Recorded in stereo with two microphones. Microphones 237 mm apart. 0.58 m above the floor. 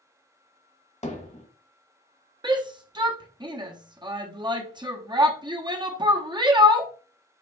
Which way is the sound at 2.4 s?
20° right (ahead or behind).